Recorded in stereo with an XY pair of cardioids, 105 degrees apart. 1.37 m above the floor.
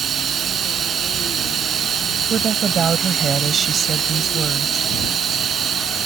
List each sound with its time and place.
0.0 s running water: 55° right
2.3 s a woman speaking: 45° right